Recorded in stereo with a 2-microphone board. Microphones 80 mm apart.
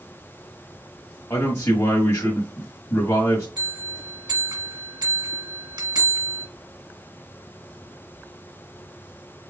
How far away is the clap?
I don't hear a clap.